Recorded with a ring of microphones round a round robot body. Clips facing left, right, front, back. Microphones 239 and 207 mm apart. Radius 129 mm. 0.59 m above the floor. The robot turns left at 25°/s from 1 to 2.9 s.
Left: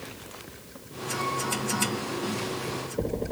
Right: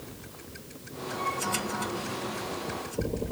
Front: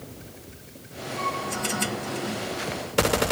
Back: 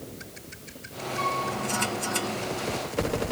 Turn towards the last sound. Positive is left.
turn(degrees=85)